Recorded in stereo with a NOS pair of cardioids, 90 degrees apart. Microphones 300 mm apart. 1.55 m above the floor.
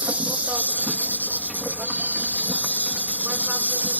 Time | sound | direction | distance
0.0 | an insect | 5° right | ?